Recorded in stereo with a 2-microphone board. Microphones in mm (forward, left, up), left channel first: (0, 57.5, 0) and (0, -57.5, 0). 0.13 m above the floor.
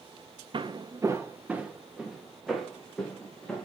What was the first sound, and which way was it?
Footsteps, 45° right (ahead or behind).